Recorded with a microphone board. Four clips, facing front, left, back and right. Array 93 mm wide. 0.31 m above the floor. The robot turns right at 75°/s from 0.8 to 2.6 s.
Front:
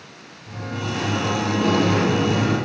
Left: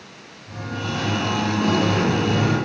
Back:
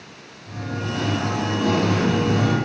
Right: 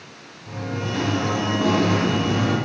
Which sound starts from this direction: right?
Singing, at 0.5 s.